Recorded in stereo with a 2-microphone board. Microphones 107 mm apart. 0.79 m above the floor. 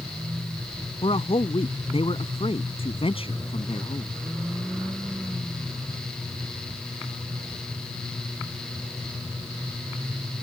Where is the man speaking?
60° left (ahead or behind).